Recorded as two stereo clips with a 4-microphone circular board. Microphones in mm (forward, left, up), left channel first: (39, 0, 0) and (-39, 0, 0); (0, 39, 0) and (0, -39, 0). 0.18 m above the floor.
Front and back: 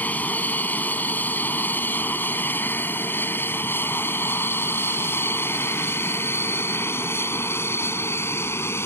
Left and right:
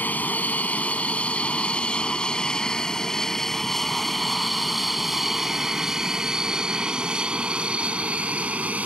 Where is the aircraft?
45° left; by 8.9 s 30° right.